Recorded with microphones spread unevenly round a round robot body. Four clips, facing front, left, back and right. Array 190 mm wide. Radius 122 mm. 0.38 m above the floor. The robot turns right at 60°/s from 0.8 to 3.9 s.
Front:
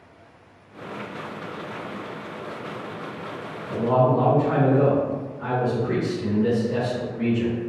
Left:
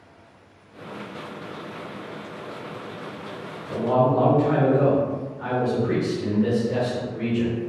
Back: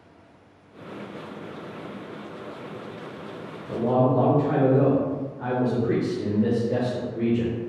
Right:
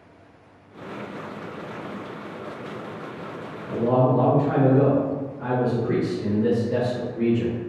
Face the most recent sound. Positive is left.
turn(degrees=-170)